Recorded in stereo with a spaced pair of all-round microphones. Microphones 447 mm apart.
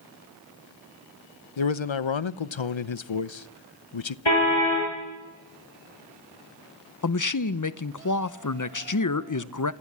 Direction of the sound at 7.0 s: 45° left (ahead or behind).